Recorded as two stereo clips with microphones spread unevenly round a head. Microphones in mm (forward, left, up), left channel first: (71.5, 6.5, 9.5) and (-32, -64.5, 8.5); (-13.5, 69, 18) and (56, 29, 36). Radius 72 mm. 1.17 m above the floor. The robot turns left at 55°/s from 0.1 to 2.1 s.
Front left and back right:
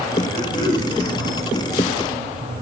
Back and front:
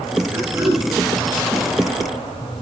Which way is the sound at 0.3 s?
35° left.